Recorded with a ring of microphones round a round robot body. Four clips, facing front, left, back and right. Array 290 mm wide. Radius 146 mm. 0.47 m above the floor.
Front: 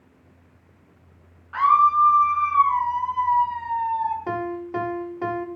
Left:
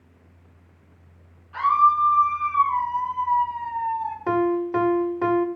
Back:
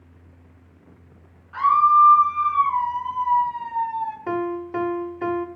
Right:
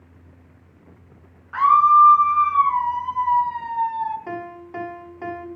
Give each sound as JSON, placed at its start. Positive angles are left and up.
{"t": 1.5, "sound": "a scream", "azimuth_deg": -65, "distance_m": 6.5}
{"t": 4.3, "sound": "a piano", "azimuth_deg": 95, "distance_m": 1.5}